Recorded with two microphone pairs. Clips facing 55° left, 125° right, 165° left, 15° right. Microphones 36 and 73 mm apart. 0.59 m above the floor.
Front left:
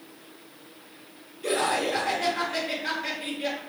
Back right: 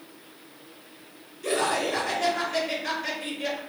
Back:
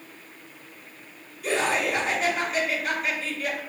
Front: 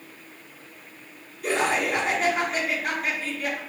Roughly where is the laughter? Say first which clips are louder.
Even, front 1 dB; ahead.